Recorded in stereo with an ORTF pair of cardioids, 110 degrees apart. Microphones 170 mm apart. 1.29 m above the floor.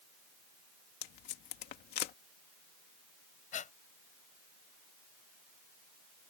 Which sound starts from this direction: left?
Tape being pulled, at 1.0 s.